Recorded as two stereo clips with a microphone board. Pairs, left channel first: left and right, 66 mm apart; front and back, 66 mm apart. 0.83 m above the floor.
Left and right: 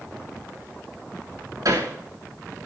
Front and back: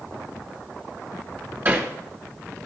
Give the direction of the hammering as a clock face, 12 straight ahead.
4 o'clock.